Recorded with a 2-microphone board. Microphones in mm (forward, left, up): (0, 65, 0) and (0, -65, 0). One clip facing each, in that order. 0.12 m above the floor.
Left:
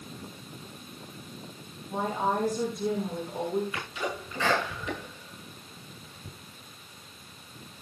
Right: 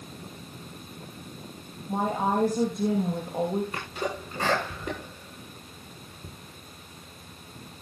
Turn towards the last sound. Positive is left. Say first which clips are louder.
# right 2 dB
turn(degrees=-50)  # may be behind; listen again after turning